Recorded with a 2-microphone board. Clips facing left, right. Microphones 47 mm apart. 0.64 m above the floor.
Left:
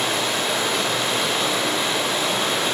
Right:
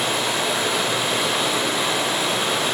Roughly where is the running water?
Centre.